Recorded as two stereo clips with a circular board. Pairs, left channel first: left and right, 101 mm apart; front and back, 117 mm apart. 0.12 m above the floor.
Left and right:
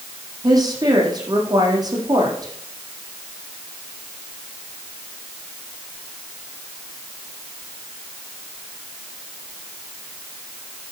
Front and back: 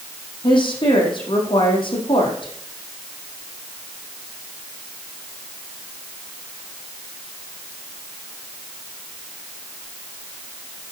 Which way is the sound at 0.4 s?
45° right.